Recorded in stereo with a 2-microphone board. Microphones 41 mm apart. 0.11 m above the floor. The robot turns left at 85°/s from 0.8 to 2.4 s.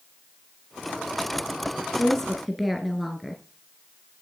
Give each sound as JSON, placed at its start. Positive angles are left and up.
{"t": 2.0, "sound": "a woman speaking", "azimuth_deg": 25, "distance_m": 1.4}